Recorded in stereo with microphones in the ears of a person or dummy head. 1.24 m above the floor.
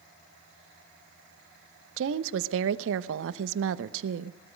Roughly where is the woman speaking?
Right.